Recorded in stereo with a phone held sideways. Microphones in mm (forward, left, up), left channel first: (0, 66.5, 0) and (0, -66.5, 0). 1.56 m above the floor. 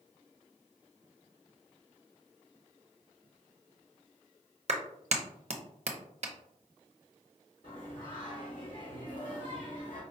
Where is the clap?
55° right (ahead or behind), 0.6 m.